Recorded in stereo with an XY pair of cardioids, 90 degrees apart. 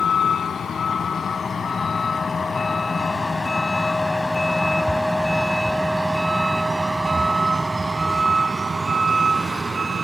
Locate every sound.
0.0 s a vehicle: 55° left; by 10.1 s 35° right